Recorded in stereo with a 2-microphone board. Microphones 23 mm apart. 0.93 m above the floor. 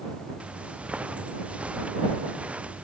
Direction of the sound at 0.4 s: 70° right (ahead or behind).